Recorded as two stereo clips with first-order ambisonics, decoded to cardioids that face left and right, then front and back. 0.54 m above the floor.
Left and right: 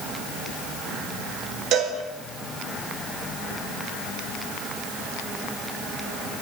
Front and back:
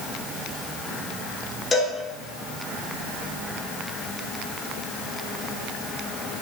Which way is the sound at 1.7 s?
75° right.